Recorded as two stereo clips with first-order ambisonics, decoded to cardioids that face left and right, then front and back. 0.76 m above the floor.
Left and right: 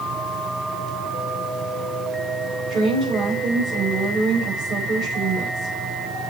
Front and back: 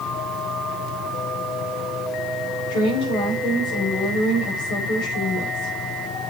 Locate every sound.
2.7 s a woman speaking: 30° right, 4.5 m